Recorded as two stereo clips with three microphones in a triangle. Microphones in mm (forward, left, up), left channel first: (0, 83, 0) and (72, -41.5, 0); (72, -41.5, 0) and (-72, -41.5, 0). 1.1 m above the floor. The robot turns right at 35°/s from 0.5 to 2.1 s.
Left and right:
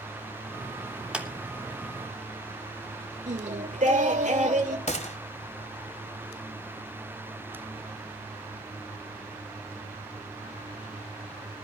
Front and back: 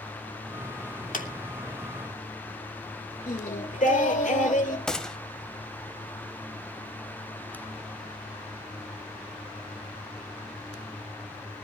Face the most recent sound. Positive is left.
turn(degrees=85)